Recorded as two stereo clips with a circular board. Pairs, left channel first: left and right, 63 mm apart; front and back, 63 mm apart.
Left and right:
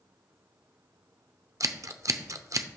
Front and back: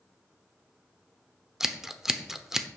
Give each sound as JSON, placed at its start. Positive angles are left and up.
{"t": 1.6, "sound": "scissors", "azimuth_deg": -100, "distance_m": 0.7}